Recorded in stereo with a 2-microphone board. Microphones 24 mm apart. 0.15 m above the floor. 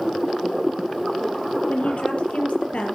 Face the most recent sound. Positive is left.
turn(degrees=55)  # may be behind; listen again after turning